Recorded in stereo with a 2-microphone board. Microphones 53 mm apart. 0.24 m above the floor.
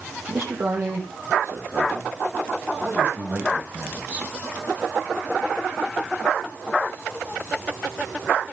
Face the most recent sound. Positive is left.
turn(degrees=-30)  # may be behind; listen again after turning